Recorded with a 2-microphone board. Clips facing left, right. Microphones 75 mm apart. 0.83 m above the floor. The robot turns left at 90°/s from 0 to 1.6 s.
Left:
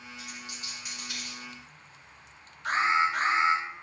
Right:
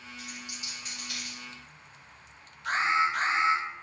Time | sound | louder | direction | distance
0.2 | a dropped coin | right 1 dB | 50° right (ahead or behind) | 1.7 m
2.6 | an alarm | left 1 dB | 75° left (ahead or behind) | 1.8 m